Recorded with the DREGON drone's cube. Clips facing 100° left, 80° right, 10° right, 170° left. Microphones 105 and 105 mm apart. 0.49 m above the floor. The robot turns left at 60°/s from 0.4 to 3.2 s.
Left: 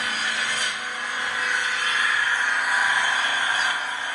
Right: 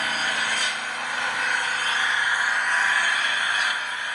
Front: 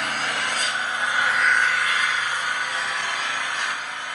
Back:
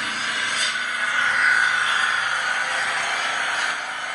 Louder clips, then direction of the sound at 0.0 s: Right 1 dB, front 1 dB; 40° right.